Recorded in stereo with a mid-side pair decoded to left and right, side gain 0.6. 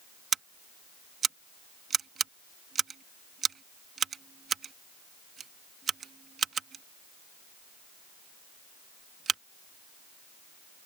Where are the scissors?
35° right.